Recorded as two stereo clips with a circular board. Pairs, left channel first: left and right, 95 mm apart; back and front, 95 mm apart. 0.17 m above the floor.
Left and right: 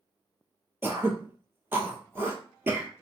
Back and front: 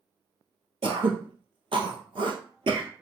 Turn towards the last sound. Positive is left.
turn(degrees=-20)